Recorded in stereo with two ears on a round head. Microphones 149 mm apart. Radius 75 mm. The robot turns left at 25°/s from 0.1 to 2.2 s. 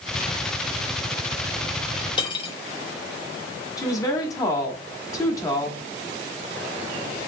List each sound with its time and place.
2.2 s cutlery clinking: 30° left (ahead or behind), 1.0 m
3.8 s a woman speaking: 20° left (ahead or behind), 1.1 m